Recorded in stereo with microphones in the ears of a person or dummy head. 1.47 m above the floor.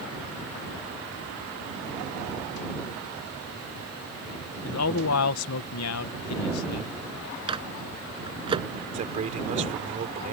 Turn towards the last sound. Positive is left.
turn(degrees=-35)  # may be behind; listen again after turning